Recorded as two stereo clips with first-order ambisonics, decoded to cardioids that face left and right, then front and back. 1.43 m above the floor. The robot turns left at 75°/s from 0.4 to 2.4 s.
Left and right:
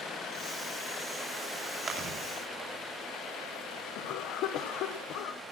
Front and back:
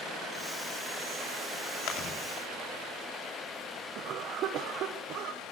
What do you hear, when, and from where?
1.9 s chewing: 20° right, 3 m; by 2.1 s 45° right, 3 m
4.0 s a cough: 130° left, 1.2 m